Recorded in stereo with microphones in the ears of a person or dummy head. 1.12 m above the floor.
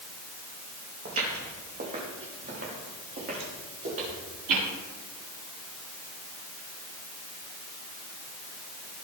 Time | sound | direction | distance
1.1 | footsteps | 45° right (ahead or behind) | 4.5 m